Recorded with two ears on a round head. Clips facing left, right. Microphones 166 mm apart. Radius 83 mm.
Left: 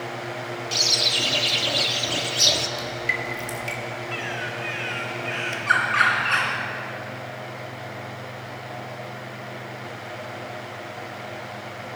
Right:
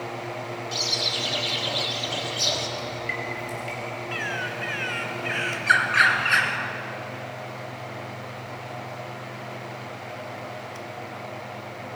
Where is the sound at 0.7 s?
35° left (ahead or behind), 1.4 m.